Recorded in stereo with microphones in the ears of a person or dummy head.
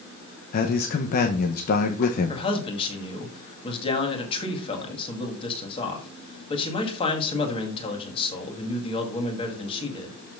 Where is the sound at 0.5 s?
45° left (ahead or behind), 0.8 m.